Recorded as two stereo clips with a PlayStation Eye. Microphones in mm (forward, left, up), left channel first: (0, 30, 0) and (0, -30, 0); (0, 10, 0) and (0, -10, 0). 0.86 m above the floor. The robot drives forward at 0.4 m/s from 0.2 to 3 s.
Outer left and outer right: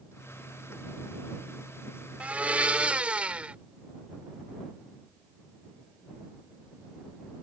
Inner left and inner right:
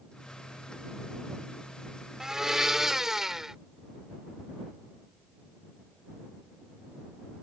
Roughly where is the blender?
Right.